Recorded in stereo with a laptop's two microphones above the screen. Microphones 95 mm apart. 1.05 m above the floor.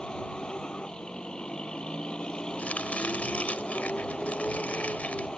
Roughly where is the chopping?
Centre.